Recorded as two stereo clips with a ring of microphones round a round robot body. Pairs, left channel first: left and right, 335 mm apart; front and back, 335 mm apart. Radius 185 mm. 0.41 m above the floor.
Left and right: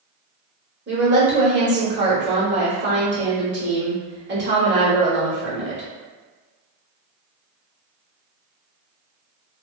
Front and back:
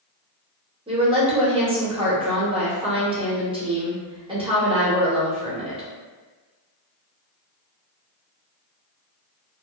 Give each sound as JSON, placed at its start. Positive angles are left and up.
{"t": 0.9, "sound": "a woman speaking", "azimuth_deg": -115, "distance_m": 1.1}